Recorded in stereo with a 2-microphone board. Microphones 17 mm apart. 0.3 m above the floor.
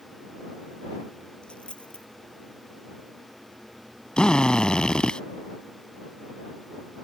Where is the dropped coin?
75° left (ahead or behind).